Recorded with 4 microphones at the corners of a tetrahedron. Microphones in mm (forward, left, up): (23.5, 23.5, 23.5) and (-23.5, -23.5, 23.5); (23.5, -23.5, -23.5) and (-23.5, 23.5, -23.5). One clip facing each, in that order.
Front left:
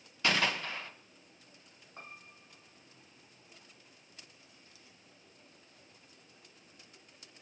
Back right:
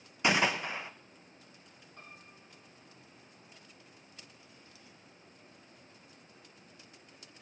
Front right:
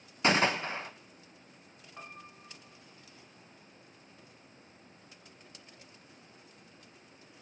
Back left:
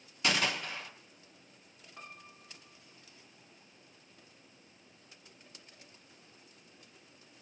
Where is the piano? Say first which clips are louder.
Front left 3 dB, front right 3 dB; 25° left, 1.7 m.